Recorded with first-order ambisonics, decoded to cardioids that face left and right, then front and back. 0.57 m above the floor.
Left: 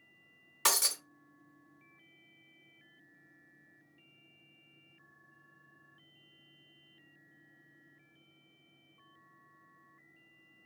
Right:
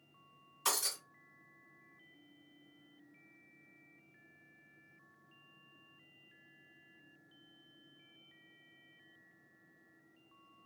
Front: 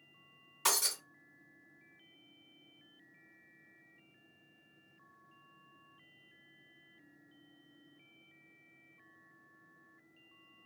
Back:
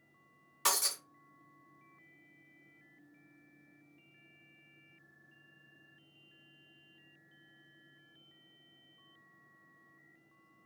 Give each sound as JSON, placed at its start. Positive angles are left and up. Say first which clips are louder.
{"t": 0.7, "sound": "breaking glass", "louder": "left 5 dB, even", "azimuth_deg": 95, "distance_m": 1.0}